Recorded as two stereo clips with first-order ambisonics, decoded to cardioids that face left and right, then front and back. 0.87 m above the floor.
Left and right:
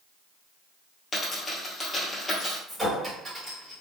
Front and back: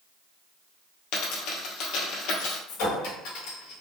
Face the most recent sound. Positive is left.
turn(degrees=-10)